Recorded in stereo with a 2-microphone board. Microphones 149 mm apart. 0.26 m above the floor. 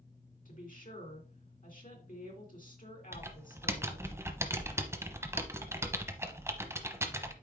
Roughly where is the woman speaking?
Left.